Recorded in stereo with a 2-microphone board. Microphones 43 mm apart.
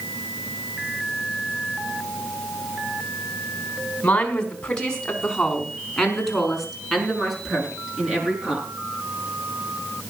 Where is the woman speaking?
25° left (ahead or behind), 4 m; by 8.7 s 10° right (ahead or behind), 7 m.